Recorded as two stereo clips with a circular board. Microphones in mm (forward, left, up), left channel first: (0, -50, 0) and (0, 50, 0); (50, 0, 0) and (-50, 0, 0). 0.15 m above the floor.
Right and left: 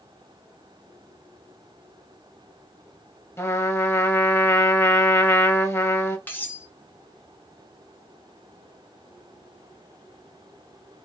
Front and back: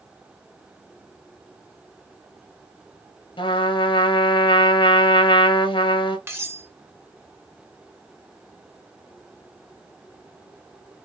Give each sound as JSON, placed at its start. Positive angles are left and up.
{"t": 3.4, "sound": "a trumpet", "azimuth_deg": -25, "distance_m": 0.8}
{"t": 6.3, "sound": "cutlery clinking", "azimuth_deg": -140, "distance_m": 0.9}